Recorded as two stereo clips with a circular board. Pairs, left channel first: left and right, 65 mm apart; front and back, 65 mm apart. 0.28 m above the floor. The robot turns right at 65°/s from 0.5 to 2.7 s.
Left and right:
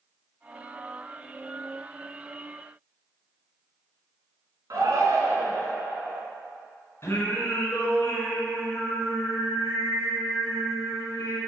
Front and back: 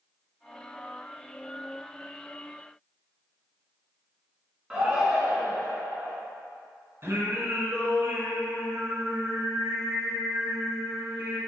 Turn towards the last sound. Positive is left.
turn(degrees=130)